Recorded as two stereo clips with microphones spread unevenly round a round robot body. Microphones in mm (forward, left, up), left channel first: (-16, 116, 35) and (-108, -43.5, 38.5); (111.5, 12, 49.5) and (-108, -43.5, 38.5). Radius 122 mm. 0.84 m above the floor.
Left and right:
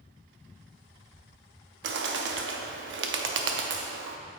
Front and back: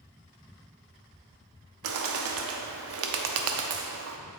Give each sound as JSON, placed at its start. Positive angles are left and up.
{"t": 1.8, "sound": "a bird", "azimuth_deg": -140, "distance_m": 0.8}